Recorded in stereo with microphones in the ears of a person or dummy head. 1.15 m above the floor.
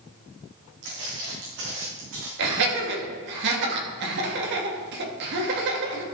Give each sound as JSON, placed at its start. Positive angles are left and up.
{"t": 0.8, "sound": "footsteps", "side_deg": -70, "distance_m": 4.0}
{"t": 2.4, "sound": "laughter", "side_deg": -60, "distance_m": 2.5}